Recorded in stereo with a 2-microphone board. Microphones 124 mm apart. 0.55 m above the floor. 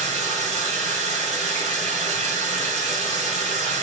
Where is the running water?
75° right (ahead or behind), 5.5 m.